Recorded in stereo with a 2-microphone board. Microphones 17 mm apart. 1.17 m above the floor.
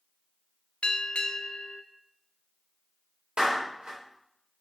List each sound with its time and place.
0.8 s a bell: 85° left, 0.5 m
3.4 s a clap: 90° right, 2.0 m